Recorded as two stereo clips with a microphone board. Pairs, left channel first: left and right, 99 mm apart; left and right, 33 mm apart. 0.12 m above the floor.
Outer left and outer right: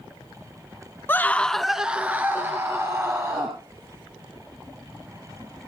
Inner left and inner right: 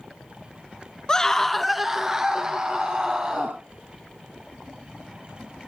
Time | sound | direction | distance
1.1 | a scream | 20° left (ahead or behind) | 1.1 m